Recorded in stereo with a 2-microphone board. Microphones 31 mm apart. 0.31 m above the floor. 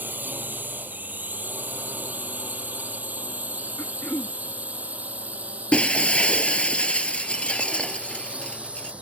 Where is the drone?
65° right (ahead or behind); by 9.0 s 35° right (ahead or behind).